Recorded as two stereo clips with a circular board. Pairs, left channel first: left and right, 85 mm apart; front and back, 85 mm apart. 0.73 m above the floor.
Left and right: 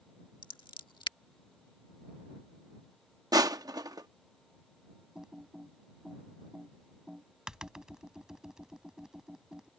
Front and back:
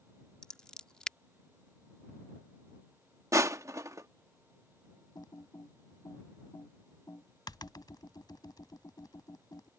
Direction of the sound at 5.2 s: 10° right.